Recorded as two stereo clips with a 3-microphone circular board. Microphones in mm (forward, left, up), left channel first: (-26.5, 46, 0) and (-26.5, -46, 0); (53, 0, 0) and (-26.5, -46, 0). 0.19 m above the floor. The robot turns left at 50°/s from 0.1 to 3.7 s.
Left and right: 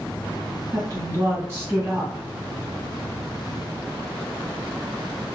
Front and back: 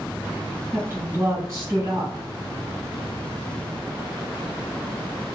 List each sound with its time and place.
0.7 s a woman speaking: 100° right, 2.0 m; by 2.3 s 175° right, 2.0 m